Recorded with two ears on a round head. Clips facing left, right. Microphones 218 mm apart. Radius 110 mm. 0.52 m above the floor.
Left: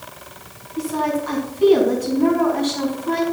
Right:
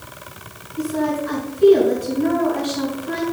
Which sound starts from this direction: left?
A woman speaking, at 0.8 s.